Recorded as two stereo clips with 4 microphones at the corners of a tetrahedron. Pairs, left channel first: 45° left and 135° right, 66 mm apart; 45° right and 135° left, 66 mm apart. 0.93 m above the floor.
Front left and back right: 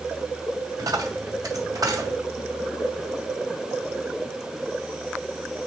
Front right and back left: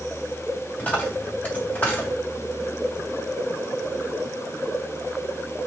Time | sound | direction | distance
0.8 | a dropped coin | 110° right | 3 m